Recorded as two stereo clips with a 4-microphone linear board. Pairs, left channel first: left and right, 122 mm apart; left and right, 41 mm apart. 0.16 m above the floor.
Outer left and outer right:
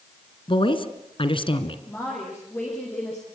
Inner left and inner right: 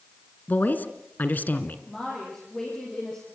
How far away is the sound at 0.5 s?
About 1.9 m.